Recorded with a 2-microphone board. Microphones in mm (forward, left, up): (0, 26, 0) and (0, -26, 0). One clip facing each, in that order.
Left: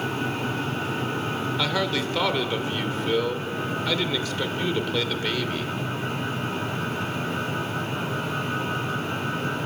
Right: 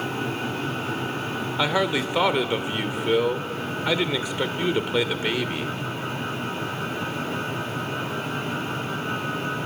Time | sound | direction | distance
1.6 | a man speaking | 20° right (ahead or behind) | 1.1 m